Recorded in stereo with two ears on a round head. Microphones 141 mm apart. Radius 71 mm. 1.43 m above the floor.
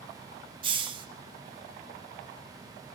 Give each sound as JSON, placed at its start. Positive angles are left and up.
{"t": 0.6, "sound": "a hiss", "side_deg": -30, "distance_m": 1.0}